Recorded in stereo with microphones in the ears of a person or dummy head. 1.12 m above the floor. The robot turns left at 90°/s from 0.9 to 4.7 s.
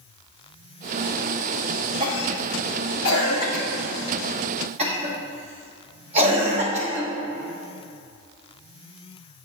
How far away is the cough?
About 2.5 m.